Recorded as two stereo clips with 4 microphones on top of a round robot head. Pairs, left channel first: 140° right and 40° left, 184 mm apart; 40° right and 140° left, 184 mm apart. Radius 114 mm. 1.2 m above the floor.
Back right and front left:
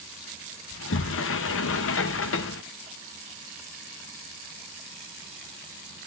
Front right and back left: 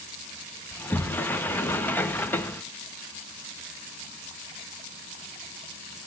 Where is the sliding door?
120° right, 0.6 m.